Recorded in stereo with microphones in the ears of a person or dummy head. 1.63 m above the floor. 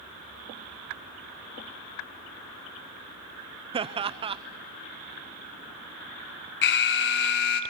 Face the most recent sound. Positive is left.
turn(degrees=55)  # may be behind; listen again after turning